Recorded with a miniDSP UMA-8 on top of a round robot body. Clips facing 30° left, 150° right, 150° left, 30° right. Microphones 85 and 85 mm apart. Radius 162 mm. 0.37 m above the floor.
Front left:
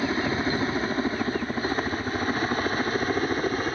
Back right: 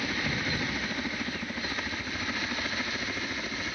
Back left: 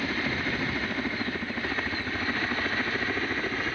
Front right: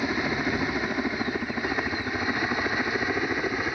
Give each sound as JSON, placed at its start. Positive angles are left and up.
{"t": 0.0, "sound": "a helicopter", "azimuth_deg": 25}